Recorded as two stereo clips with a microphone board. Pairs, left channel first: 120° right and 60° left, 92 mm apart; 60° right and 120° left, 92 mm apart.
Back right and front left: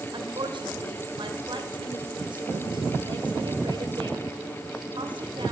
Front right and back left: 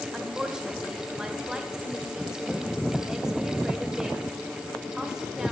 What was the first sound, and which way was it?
A woman speaking, 35° left.